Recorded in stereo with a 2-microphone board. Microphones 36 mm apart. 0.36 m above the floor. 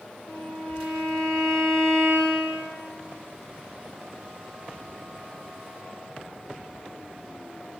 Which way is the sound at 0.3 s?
25° left (ahead or behind).